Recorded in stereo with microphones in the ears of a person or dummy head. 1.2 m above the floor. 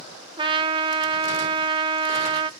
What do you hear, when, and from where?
0.4 s a trumpet: 25° right (ahead or behind), 0.5 m